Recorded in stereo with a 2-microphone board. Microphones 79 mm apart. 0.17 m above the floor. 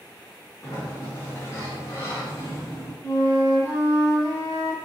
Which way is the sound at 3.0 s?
35° left (ahead or behind).